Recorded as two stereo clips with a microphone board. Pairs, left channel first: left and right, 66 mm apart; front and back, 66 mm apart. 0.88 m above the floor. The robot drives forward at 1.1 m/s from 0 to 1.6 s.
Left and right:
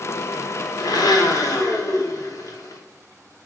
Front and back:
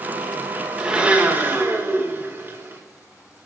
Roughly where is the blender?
Left.